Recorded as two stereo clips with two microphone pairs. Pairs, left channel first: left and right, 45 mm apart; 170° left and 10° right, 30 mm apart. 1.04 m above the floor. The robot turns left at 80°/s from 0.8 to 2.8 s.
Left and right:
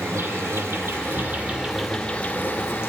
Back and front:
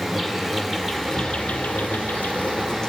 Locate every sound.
0.0 s an insect: 95° right, 1.7 m; by 2.9 s 105° left, 1.7 m
1.1 s a drawer: 40° right, 10 m; by 1.4 s 65° right, 10 m